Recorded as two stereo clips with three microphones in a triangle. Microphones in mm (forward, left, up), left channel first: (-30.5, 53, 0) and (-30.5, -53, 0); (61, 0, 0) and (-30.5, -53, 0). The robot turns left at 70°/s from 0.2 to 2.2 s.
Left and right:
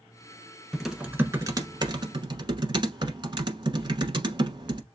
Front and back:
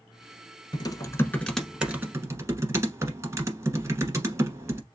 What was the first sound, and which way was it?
Typing on a keyboard, 5° left.